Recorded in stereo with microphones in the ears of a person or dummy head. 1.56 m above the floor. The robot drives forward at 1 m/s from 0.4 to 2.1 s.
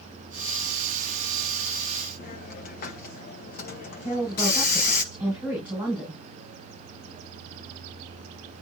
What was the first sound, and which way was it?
A hiss, 45° left (ahead or behind).